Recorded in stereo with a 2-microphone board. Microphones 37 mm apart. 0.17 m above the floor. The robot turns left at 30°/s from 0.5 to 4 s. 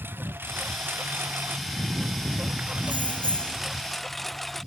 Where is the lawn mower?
80° right; by 4.7 s 175° left.